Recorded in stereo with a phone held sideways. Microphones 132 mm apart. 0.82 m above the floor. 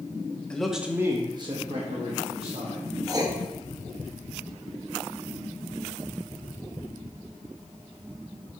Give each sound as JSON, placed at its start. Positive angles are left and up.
{"t": 0.5, "sound": "a man speaking", "side_deg": 5, "distance_m": 1.1}
{"t": 3.1, "sound": "writing", "side_deg": -25, "distance_m": 1.2}